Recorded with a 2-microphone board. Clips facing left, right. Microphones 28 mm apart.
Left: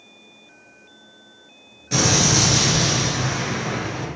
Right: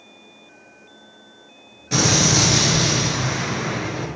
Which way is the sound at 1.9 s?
10° right (ahead or behind).